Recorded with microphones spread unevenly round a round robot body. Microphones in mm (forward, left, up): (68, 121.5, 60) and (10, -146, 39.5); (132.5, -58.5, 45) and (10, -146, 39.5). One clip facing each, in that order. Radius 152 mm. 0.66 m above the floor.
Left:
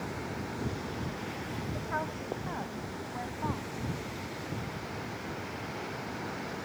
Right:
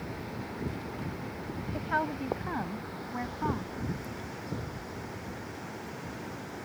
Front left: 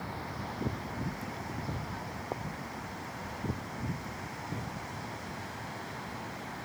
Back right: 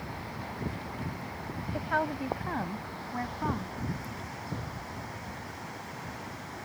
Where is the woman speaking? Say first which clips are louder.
Right 3 dB, back right 9 dB; 145° right; by 3.8 s 160° right.